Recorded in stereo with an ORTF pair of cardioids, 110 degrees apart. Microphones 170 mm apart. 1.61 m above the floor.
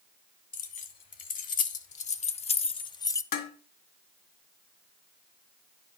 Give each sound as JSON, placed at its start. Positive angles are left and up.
{"t": 0.5, "sound": "keys jangling", "azimuth_deg": 55, "distance_m": 1.8}
{"t": 3.3, "sound": "dishes clattering", "azimuth_deg": 65, "distance_m": 2.5}